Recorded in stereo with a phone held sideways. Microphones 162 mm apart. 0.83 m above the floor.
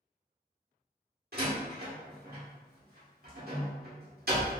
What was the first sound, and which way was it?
A door slam, 80° right.